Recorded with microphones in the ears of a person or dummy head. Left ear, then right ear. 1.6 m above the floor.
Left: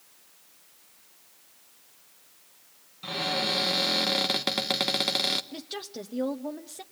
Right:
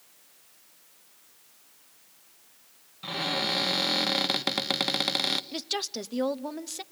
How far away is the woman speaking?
About 0.8 m.